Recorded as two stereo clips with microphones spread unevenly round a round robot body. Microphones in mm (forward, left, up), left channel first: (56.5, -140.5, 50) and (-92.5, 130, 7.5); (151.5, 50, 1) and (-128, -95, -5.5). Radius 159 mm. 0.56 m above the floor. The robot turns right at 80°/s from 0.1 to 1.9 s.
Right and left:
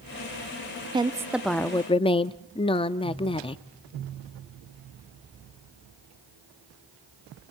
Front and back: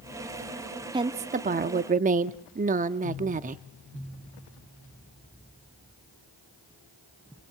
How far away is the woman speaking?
About 0.6 m.